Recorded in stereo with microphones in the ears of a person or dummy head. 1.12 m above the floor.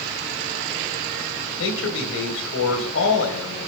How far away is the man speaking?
About 3.5 m.